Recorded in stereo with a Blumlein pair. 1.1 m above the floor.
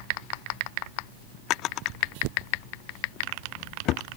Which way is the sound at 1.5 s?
35° left.